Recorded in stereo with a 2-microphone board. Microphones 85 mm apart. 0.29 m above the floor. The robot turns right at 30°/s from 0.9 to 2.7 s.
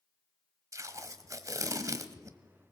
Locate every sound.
0.7 s tape being pulled: 110° right, 1.1 m; by 2.4 s 65° right, 1.1 m